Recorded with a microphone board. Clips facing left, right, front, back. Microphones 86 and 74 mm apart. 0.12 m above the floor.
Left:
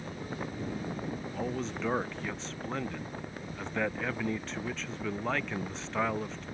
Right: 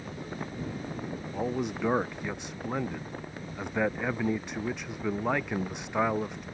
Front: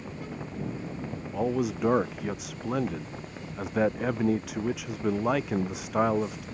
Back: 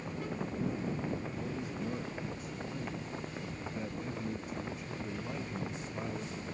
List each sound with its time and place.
1.3 s a man speaking: 15° right